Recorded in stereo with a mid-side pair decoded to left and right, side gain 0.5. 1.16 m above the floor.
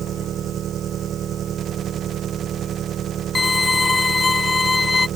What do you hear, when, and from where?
0.0 s an engine running: 55° right
3.4 s a violin: 20° left